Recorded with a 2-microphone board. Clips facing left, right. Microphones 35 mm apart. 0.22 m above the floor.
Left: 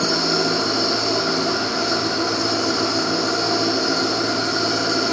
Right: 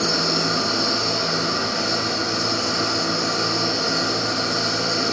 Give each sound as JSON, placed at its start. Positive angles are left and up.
{"t": 0.0, "sound": "an engine running", "side_deg": 75, "distance_m": 4.0}